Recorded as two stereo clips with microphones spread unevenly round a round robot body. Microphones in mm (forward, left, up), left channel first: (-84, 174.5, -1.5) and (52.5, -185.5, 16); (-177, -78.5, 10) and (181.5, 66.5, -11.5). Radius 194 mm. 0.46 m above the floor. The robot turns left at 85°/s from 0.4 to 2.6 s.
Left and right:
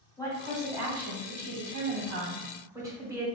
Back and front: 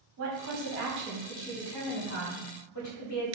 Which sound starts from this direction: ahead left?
A woman speaking, at 0.2 s.